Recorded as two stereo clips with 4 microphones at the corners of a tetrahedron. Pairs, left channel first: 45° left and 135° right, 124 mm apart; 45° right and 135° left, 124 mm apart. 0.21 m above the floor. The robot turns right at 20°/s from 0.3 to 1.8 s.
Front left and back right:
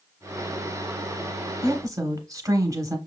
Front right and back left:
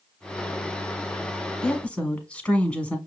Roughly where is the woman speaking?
Behind right.